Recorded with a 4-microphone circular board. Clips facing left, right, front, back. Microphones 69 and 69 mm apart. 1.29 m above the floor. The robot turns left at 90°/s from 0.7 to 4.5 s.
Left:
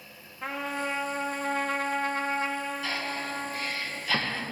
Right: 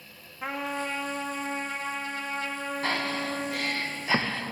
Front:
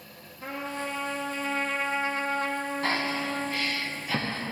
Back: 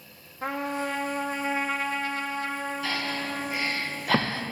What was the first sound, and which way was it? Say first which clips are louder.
A trumpet: even, back 4 dB; 175° right.